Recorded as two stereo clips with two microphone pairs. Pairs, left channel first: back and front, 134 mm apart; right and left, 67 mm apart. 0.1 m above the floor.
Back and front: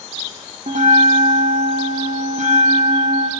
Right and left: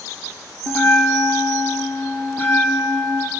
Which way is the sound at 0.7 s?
25° right.